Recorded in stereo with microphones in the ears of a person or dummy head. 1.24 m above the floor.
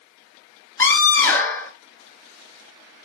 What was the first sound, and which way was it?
A scream, 15° left (ahead or behind).